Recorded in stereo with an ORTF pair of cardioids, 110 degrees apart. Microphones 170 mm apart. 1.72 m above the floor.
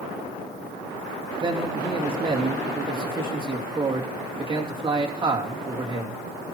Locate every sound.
1.4 s a man speaking: 30° right, 3 m